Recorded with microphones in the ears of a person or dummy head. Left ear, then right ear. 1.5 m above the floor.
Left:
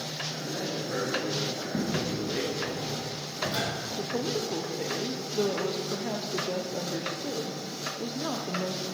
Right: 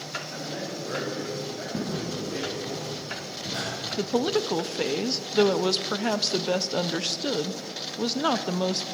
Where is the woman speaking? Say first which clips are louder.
Right 7 dB; 65° right (ahead or behind), 0.6 m.